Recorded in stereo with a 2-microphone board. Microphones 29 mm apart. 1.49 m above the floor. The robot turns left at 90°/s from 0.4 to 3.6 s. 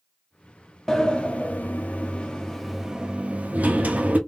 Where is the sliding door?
165° left, 0.8 m; by 4.2 s 80° right, 0.8 m.